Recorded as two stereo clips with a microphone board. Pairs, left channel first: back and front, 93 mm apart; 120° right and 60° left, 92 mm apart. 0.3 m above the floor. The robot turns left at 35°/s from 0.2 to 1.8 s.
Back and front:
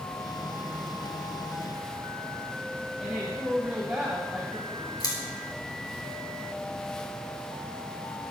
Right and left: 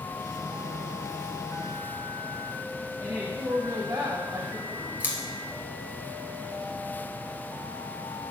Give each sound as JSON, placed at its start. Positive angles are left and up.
{"t": 3.0, "sound": "a woman speaking", "azimuth_deg": 80, "distance_m": 1.5}
{"t": 5.0, "sound": "scissors", "azimuth_deg": 135, "distance_m": 1.8}